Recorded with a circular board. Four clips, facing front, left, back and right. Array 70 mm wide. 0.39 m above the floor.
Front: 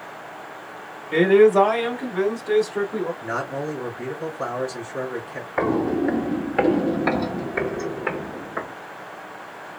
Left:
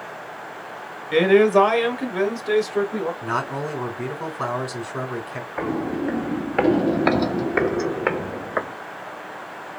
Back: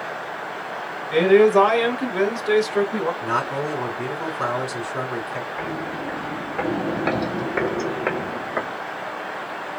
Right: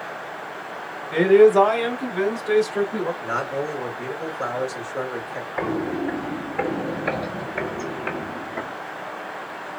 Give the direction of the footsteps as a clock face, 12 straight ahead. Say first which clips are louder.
Even, front 7 dB; 12 o'clock.